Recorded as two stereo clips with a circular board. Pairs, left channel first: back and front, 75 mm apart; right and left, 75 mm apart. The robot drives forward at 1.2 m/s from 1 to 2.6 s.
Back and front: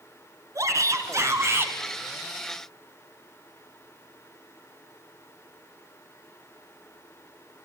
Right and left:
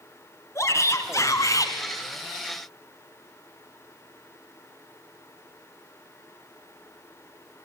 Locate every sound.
0.6 s a shout: 45° right, 3 m; by 1.8 s 60° right, 2.5 m